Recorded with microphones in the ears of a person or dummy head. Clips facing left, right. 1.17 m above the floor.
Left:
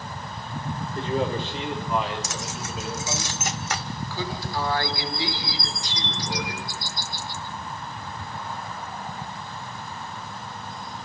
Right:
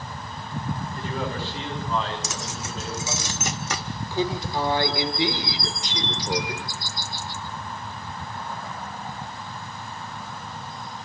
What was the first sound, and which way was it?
A man speaking, 30° left (ahead or behind).